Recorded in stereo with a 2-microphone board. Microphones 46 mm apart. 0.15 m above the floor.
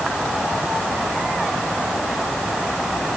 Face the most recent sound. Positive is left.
No sound to turn to.